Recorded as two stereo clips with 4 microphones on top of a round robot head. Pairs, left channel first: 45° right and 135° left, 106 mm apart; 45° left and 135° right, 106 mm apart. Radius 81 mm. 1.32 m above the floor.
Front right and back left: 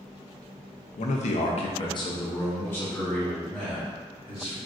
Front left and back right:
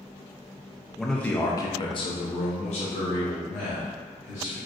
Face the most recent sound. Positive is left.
turn(degrees=45)